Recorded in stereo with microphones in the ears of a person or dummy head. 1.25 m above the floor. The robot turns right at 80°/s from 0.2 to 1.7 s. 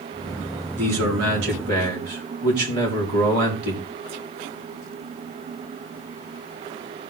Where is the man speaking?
130° right, 3.5 m; by 3.8 s 55° right, 3.5 m.